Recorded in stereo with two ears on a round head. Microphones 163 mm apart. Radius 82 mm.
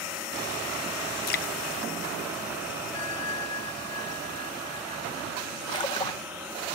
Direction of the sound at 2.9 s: 75° left (ahead or behind).